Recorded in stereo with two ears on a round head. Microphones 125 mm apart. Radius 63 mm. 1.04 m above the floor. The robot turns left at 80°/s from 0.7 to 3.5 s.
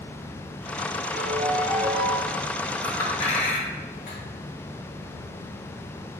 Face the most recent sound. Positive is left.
turn(degrees=65)  # may be behind; listen again after turning